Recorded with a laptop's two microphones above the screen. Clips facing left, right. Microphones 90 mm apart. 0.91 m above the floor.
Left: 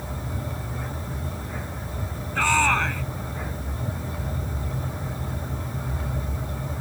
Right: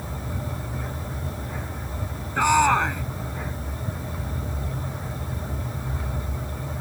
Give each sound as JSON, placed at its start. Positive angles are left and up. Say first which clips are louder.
{"t": 2.4, "sound": "a shout", "louder": "right 3 dB", "side_deg": -15}